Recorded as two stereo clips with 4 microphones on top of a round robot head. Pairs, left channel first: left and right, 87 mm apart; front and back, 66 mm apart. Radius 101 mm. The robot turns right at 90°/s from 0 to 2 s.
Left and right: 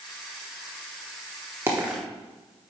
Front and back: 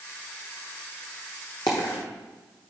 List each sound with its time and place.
1.7 s a dropped coin: 35° right, 0.8 m; by 2.0 s 5° right, 0.8 m